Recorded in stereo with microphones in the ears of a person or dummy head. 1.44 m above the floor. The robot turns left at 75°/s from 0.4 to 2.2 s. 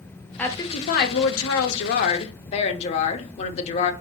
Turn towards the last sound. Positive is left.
turn(degrees=35)